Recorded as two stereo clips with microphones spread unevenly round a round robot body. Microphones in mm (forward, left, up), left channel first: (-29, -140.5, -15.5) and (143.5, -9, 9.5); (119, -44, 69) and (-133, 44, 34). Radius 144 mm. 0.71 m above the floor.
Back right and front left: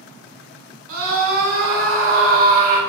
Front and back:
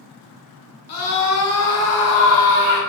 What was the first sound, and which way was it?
A scream, 20° left.